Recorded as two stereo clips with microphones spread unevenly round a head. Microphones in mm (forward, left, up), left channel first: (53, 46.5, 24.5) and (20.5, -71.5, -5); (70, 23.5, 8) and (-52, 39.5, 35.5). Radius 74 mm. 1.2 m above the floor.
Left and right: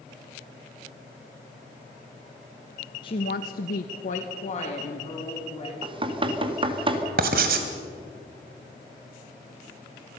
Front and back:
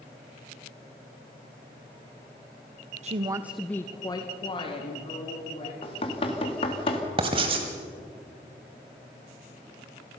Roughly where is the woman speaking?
Behind left.